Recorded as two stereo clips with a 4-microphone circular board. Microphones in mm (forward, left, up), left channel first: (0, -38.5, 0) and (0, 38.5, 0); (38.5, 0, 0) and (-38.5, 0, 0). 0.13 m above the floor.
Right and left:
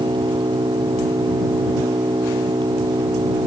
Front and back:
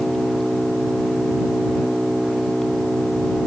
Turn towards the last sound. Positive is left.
turn(degrees=85)